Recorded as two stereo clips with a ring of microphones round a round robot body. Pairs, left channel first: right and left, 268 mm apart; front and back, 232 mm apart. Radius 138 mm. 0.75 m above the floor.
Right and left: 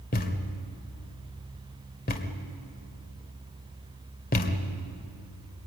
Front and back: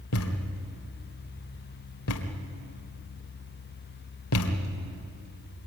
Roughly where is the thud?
Ahead right.